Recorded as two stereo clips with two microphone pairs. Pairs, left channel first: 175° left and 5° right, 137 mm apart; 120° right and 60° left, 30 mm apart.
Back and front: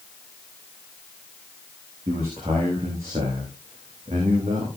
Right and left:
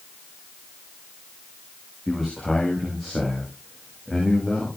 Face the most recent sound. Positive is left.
turn(degrees=-45)